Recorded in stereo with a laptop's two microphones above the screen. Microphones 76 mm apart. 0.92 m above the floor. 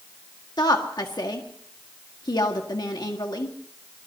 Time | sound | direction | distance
0.6 | a woman speaking | 60° left (ahead or behind) | 1.6 m